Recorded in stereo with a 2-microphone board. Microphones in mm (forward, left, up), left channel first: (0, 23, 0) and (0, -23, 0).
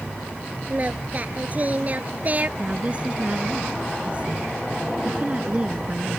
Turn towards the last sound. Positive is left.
turn(degrees=-25)  # may be behind; listen again after turning